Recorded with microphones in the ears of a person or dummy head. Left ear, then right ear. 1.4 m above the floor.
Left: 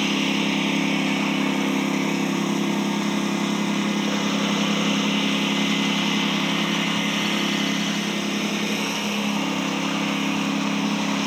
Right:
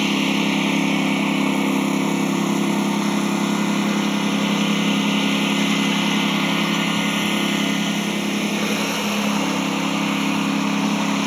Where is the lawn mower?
10° right (ahead or behind).